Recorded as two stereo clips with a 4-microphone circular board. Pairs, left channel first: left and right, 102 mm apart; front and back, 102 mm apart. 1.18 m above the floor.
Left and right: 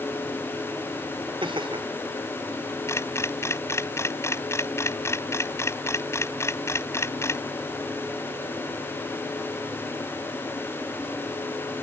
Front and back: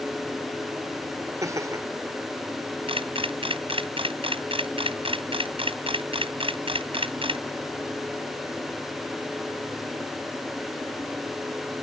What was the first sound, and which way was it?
Laughter, 125° right.